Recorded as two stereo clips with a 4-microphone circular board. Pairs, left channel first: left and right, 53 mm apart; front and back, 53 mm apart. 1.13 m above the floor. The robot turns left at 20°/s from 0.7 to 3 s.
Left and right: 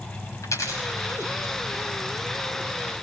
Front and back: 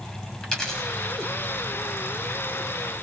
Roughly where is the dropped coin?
Left.